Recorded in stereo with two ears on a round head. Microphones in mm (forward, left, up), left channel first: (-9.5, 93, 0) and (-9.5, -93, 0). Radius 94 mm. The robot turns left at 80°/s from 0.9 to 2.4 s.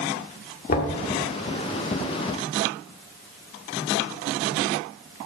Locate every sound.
0.7 s knocking: 40° left (ahead or behind), 1.6 m; by 1.0 s 45° left (ahead or behind), 1.6 m